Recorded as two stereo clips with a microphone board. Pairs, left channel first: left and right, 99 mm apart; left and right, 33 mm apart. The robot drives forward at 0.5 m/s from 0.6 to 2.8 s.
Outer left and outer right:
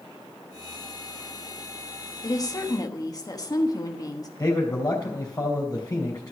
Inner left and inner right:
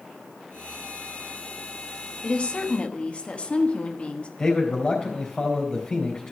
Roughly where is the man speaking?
Left.